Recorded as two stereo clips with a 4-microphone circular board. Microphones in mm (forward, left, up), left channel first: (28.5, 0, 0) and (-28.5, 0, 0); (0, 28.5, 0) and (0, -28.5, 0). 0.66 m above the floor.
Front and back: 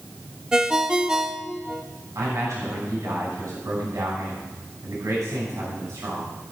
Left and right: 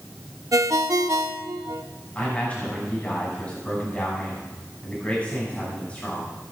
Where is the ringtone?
105° right, 0.7 m.